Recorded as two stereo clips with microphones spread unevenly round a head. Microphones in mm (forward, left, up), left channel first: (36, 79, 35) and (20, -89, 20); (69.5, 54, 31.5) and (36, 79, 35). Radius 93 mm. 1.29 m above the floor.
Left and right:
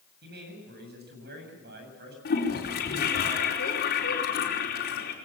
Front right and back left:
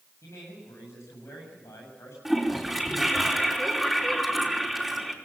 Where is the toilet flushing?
55° left, 5 m.